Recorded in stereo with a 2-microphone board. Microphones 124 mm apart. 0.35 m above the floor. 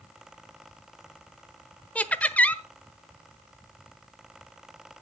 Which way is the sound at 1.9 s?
10° left (ahead or behind).